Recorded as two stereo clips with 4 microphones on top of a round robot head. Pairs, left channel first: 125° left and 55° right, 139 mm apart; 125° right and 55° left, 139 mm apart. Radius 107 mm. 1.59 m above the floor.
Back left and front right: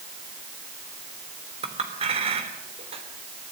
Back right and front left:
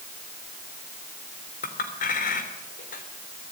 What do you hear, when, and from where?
1.6 s a clink: 100° right, 3 m